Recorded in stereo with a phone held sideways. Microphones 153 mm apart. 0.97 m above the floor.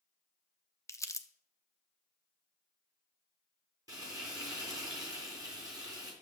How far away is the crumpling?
About 0.7 m.